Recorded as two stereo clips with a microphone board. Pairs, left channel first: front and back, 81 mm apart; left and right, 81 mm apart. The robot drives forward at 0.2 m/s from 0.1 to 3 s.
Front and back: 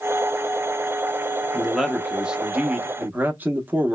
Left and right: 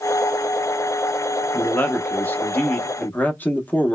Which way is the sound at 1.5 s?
85° left.